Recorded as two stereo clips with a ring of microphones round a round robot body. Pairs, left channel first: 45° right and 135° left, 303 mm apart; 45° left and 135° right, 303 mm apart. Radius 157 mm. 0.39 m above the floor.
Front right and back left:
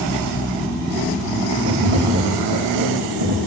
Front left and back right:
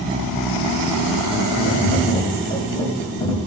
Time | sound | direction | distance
1.6 | tapping | 120° left | 3.5 m